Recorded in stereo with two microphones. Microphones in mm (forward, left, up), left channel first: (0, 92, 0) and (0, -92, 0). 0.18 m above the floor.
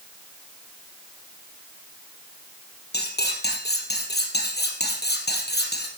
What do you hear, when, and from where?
2.9 s cutlery clinking: 65° left (ahead or behind), 3 m